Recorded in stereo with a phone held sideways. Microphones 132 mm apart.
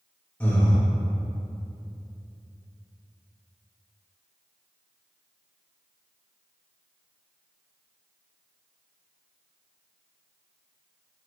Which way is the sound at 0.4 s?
10° left (ahead or behind).